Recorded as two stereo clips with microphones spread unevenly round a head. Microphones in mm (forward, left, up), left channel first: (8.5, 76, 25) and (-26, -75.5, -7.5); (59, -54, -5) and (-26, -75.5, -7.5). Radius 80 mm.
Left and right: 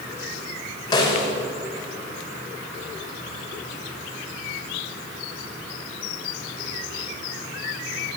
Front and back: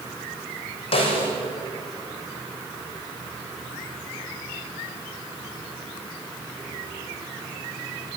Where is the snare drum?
10° left, 6.5 m.